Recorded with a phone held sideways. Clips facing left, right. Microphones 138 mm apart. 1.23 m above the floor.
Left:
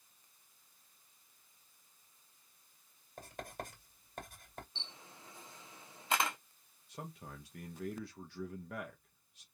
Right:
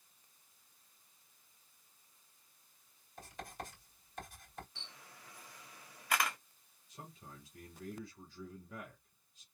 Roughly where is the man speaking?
Left.